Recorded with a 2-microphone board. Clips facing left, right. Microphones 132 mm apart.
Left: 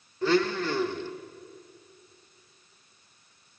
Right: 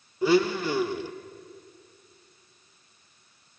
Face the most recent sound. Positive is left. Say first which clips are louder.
# right 3 dB
turn(degrees=-10)  # may be behind; listen again after turning